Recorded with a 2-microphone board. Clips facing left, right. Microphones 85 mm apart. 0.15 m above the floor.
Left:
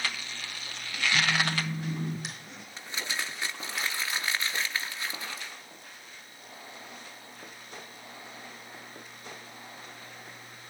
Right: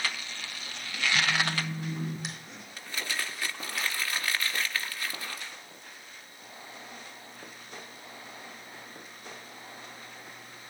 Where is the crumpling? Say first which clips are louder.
Even; 20° left (ahead or behind), 2 m.